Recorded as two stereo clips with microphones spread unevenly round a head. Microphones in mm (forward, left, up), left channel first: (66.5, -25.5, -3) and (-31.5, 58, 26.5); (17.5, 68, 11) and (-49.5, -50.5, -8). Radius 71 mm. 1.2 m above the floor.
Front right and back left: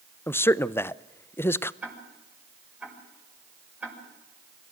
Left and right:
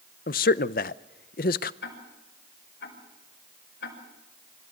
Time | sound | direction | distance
0.3 | a man speaking | 25° left | 0.7 m
1.8 | ticking | 60° left | 6.5 m